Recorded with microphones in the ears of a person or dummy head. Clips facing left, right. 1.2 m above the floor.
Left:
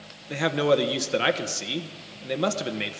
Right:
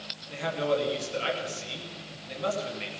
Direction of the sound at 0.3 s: 65° left (ahead or behind).